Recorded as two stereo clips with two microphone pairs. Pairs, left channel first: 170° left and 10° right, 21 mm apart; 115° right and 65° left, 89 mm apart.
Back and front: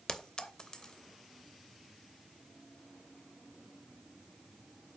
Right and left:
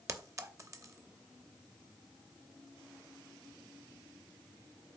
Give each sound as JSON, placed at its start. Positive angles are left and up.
{"t": 0.1, "sound": "a clink", "azimuth_deg": 120, "distance_m": 0.7}